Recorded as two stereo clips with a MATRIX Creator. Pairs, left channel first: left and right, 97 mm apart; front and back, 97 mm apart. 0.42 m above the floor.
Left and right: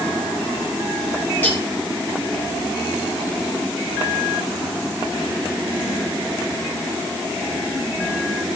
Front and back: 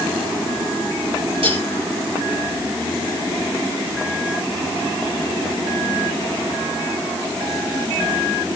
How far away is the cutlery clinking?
About 5 m.